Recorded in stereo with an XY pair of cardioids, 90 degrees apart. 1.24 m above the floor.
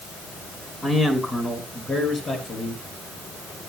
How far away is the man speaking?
About 5.5 m.